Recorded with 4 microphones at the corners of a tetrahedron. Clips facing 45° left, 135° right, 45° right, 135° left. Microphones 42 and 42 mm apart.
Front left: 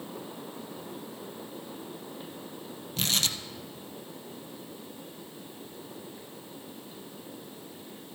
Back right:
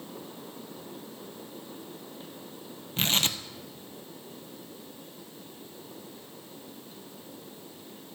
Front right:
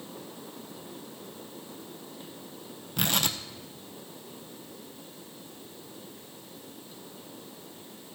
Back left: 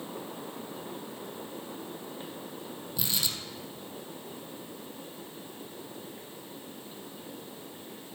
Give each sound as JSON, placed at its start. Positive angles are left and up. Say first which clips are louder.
{"t": 3.0, "sound": "tearing paper", "louder": "back right 2 dB, front right 6 dB", "azimuth_deg": -75, "distance_m": 0.8}